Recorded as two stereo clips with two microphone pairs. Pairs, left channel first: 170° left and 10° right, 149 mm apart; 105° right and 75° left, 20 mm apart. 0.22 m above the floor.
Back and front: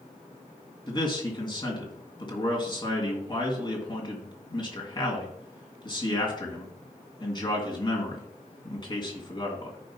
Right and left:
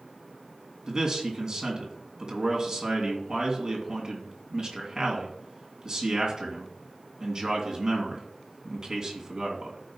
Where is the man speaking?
120° left, 2.5 m.